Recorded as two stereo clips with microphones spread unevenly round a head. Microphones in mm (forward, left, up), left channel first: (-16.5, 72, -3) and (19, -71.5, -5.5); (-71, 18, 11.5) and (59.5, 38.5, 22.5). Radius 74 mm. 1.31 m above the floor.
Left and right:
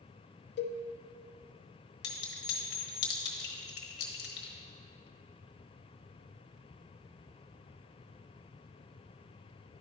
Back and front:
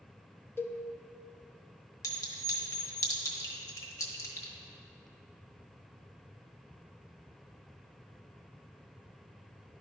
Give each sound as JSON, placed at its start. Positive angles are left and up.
{"t": 0.6, "sound": "a cowbell", "azimuth_deg": 115, "distance_m": 0.6}
{"t": 2.0, "sound": "a clink", "azimuth_deg": 125, "distance_m": 1.2}